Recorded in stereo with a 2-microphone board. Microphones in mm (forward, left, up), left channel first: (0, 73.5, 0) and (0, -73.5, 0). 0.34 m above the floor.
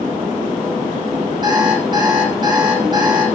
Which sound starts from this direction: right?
An alarm clock, at 1.4 s.